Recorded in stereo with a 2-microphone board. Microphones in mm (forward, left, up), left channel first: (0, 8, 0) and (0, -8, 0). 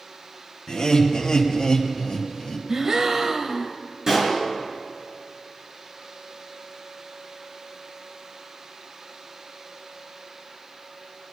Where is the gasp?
30° right (ahead or behind), 0.8 m.